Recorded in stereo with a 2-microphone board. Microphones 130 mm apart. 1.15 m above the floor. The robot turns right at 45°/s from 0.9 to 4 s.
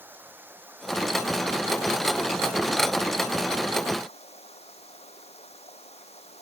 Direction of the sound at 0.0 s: 15° right.